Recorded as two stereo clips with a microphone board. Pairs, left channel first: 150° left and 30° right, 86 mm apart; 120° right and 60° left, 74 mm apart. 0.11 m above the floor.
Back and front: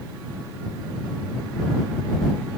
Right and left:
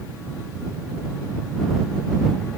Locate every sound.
Only background noise.